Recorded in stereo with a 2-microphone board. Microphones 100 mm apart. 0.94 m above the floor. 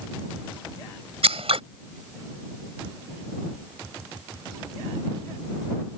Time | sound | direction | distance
1.2 | scissors | 80° right | ?